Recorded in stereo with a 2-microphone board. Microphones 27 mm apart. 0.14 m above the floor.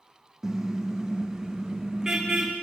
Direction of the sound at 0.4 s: 20° right (ahead or behind).